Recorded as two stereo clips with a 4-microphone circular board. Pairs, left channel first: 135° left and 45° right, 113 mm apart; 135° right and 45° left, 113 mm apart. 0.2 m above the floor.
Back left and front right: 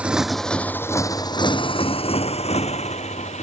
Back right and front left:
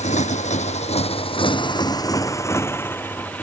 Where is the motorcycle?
125° right; by 3.4 s 150° left.